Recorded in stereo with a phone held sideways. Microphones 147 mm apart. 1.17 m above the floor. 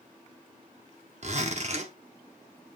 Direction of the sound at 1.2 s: 50° right (ahead or behind).